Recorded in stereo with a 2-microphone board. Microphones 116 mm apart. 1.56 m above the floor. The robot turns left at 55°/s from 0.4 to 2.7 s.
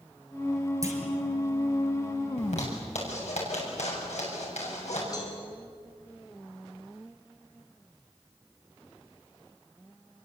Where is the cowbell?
30° left (ahead or behind), 5 m.